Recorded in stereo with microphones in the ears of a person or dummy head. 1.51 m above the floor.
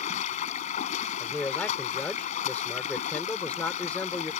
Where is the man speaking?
10° left (ahead or behind).